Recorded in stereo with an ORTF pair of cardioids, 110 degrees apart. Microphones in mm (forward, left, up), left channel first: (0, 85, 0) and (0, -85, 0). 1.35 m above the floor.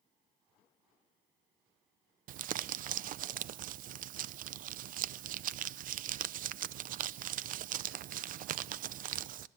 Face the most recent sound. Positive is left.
turn(degrees=-55)